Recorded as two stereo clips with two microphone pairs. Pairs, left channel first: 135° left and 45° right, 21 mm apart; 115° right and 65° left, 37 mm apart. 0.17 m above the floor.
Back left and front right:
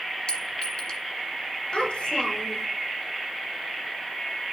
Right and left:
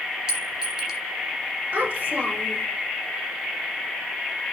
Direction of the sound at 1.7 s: 105° left.